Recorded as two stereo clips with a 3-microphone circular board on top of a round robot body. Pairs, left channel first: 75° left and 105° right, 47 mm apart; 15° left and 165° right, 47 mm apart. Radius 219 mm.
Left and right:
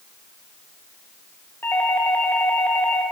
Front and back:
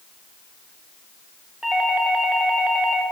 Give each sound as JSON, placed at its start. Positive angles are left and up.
{"t": 1.6, "sound": "a doorbell", "azimuth_deg": 115, "distance_m": 2.5}